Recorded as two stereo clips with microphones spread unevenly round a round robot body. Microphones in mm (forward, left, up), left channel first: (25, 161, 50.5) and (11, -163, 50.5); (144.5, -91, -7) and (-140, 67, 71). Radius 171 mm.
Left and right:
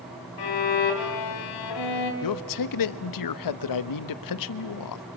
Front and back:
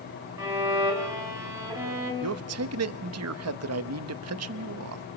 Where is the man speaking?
100° left, 0.9 m.